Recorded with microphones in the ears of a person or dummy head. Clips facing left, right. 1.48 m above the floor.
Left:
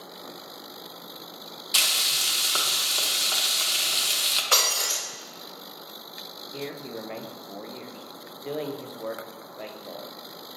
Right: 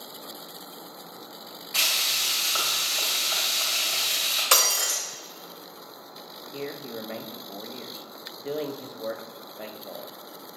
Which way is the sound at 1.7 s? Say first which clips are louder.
Even; 60° left (ahead or behind).